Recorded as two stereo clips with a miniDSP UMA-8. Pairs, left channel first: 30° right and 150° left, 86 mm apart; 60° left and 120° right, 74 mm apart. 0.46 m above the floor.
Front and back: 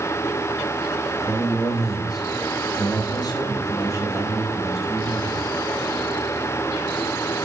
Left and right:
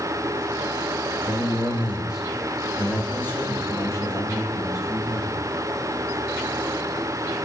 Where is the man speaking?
80° right, 1.1 m; by 5.4 s 25° left, 2.5 m.